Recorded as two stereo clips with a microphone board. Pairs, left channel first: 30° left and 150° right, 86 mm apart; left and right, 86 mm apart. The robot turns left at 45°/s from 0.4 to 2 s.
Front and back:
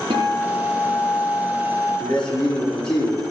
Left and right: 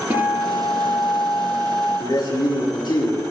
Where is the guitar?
160° right, 6 m; by 2.0 s 130° left, 6 m.